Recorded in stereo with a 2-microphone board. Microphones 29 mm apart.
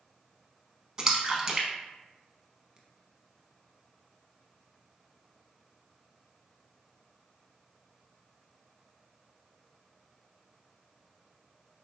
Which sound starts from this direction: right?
A splash, at 1.0 s.